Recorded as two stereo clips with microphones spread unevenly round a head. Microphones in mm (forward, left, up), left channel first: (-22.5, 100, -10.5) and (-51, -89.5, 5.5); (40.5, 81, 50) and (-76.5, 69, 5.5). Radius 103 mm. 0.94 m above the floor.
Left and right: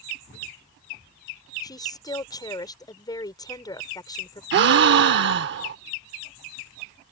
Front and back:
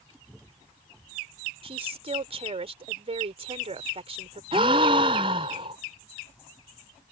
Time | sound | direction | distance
1.6 | a woman speaking | 150° left | ?
4.5 | a gasp | 100° right | ?